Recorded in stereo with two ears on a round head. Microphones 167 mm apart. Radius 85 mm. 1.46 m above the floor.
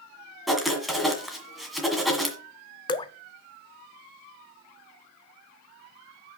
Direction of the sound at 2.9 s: 25° left (ahead or behind).